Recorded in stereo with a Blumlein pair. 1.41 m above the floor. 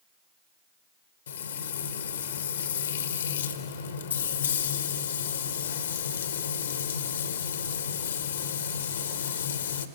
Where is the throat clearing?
No throat clearing in this recording.